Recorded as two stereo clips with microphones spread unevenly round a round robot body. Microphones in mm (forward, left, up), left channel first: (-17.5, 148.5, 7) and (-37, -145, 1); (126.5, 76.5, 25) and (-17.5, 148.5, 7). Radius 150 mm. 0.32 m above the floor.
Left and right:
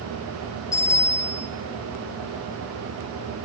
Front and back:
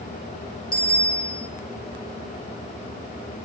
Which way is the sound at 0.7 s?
5° left.